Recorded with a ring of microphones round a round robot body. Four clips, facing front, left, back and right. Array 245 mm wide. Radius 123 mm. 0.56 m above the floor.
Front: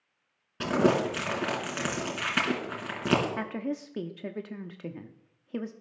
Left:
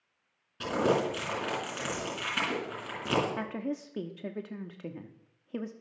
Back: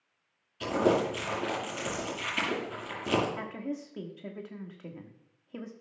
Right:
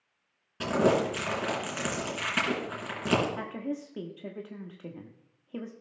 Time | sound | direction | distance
0.6 | crumpling | 20° right | 3.5 m
3.4 | a woman speaking | 25° left | 0.8 m